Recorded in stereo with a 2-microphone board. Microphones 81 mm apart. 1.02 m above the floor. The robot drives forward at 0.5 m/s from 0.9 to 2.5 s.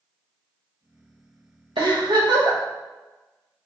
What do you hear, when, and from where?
1.8 s a giggle: 80° right, 0.8 m; by 2.6 s 65° right (ahead or behind), 0.8 m